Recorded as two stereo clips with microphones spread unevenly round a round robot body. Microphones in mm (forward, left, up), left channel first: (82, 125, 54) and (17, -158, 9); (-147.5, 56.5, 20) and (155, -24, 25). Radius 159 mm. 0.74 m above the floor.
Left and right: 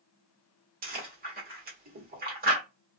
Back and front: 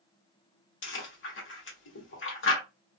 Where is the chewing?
150° right, 1.3 m.